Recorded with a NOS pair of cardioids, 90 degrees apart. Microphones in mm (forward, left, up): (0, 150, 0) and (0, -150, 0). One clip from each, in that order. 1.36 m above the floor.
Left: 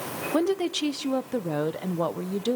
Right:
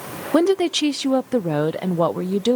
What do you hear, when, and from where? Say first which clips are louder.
0.3 s a woman speaking: right 8 dB; 35° right, 0.6 m